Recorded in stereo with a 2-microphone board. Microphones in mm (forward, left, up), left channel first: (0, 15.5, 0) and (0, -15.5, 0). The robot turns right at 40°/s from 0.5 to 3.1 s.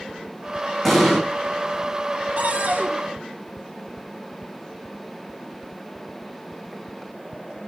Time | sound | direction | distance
0.8 | an explosion | 5° left (ahead or behind) | 3 m
2.4 | a cupboard door | 65° right (ahead or behind) | 3.5 m